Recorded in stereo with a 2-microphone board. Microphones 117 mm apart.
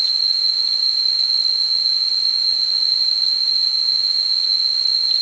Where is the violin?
No violin in this recording.